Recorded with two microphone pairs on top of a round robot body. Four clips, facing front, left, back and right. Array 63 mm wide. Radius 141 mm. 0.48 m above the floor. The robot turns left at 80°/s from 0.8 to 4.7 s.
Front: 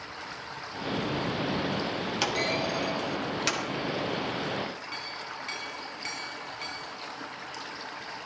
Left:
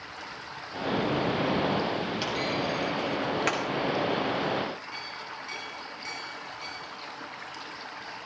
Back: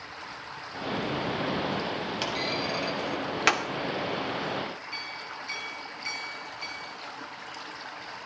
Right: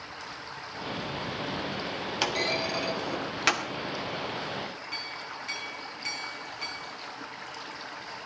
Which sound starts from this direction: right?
A clunk, at 2.2 s.